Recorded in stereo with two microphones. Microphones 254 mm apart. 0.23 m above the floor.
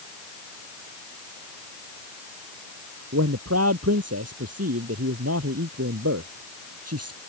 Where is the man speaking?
80° right.